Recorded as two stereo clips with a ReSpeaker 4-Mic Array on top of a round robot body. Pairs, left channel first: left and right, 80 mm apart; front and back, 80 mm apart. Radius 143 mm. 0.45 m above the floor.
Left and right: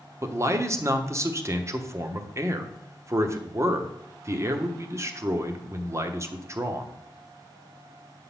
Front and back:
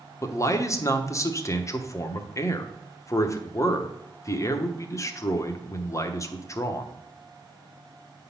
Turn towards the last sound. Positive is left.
turn(degrees=-45)